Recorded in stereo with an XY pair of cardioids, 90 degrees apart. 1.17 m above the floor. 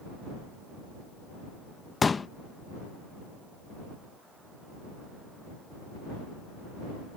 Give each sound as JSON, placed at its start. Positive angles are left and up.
{"t": 2.0, "sound": "a pop", "azimuth_deg": 35}